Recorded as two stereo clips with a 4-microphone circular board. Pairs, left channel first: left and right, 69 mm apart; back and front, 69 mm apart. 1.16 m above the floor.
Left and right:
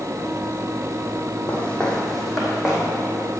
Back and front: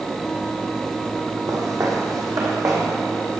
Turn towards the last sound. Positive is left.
turn(degrees=-20)